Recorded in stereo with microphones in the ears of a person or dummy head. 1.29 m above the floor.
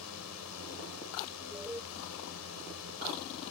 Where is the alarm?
10° right (ahead or behind).